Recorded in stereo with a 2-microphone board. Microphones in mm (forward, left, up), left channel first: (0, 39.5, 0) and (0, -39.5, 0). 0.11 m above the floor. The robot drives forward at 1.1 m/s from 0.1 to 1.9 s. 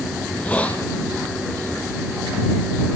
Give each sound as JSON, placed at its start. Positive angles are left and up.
{"t": 0.2, "sound": "a hiss", "side_deg": 20, "distance_m": 4.0}